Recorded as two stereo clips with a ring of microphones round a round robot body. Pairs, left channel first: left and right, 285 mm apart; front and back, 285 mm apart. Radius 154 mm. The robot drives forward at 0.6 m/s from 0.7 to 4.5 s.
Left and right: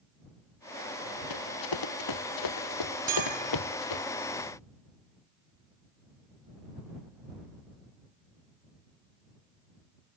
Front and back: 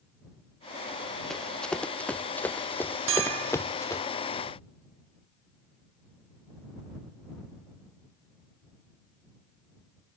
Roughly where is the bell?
Behind right.